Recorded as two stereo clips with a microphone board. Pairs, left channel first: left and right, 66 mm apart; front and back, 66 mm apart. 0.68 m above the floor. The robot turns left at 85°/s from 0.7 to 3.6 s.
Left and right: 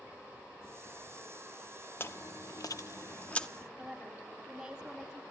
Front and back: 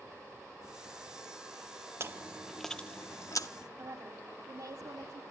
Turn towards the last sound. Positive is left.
turn(degrees=-175)